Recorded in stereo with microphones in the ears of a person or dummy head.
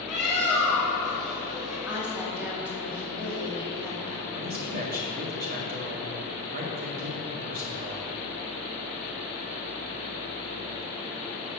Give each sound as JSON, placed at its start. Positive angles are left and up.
{"t": 0.1, "sound": "a bird", "side_deg": 0, "distance_m": 2.5}
{"t": 1.9, "sound": "a woman speaking", "side_deg": -10, "distance_m": 2.5}
{"t": 4.3, "sound": "a man speaking", "side_deg": -50, "distance_m": 1.8}